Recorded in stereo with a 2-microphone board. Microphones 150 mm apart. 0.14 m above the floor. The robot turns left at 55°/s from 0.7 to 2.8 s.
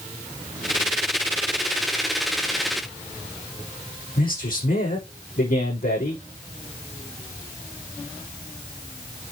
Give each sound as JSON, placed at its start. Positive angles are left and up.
{"t": 4.2, "sound": "a man speaking", "side_deg": 80, "distance_m": 6.0}